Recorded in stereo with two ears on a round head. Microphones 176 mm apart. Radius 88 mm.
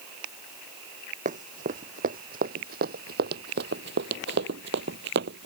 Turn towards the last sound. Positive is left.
turn(degrees=-55)  # may be behind; listen again after turning